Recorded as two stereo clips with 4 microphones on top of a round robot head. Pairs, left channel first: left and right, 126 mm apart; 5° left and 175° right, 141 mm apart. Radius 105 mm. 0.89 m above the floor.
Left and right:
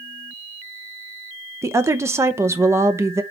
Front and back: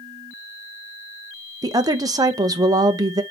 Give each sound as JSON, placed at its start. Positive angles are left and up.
{"t": 1.6, "sound": "a woman speaking", "azimuth_deg": -140, "distance_m": 0.7}